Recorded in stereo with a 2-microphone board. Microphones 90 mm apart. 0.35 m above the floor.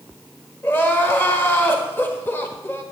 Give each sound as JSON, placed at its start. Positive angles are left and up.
{"t": 0.6, "sound": "crying", "side_deg": 25, "distance_m": 1.5}